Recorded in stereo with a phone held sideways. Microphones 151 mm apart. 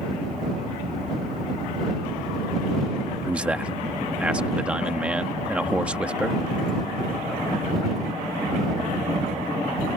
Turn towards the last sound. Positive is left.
turn(degrees=-5)  # may be behind; listen again after turning